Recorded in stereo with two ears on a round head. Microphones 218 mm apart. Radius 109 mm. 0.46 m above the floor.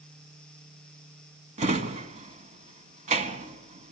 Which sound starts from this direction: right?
A drawer, at 1.6 s.